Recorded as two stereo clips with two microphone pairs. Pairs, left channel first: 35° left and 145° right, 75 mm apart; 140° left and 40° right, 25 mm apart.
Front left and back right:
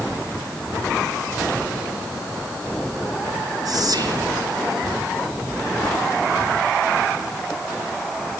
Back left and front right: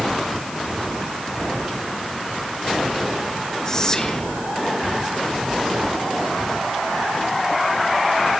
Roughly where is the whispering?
Behind right.